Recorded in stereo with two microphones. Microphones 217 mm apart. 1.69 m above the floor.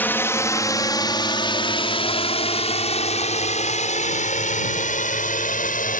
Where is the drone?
10° left (ahead or behind); by 6.0 s 40° left (ahead or behind).